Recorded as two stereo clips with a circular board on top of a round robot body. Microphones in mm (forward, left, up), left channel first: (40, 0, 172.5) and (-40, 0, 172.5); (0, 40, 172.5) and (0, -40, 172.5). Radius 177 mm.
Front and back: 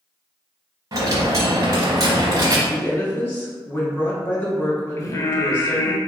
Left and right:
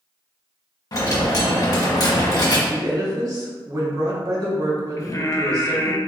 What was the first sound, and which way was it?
A dropped coin, 135° left.